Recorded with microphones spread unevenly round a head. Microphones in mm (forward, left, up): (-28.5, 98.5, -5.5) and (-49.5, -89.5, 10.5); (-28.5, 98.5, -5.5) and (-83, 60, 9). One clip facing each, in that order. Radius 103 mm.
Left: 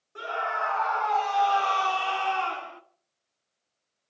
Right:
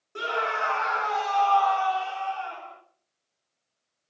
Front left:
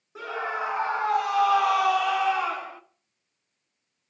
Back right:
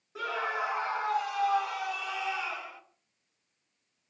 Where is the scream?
45° right, 2.5 m; by 2.8 s 80° left, 2 m.